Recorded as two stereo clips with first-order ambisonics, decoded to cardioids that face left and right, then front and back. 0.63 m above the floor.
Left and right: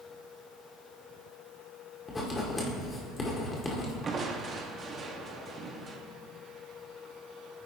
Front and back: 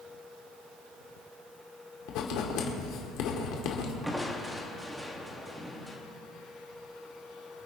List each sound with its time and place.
2.1 s writing: 15° left, 1.9 m
4.0 s crushing: 95° right, 1.2 m